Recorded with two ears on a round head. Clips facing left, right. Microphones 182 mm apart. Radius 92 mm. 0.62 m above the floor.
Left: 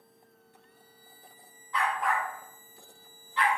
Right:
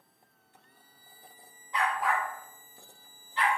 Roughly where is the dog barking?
Centre.